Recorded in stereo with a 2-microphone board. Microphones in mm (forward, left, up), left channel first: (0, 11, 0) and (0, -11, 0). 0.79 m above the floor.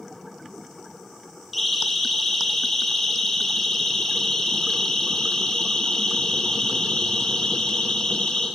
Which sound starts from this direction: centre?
A siren, at 1.5 s.